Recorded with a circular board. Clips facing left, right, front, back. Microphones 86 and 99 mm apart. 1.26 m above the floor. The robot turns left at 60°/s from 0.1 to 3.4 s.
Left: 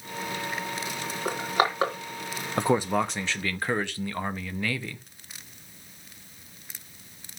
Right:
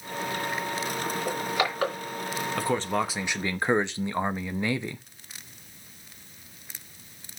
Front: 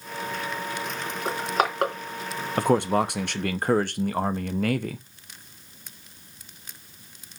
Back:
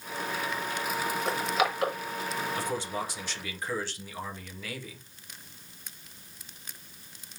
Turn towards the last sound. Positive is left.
turn(degrees=-20)